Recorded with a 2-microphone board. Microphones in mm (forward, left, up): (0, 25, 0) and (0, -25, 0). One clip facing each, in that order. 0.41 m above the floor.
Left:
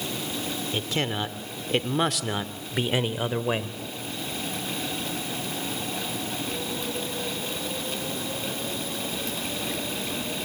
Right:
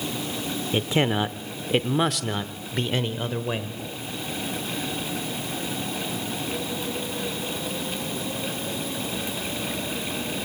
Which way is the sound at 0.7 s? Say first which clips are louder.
Right 7 dB; 20° right (ahead or behind).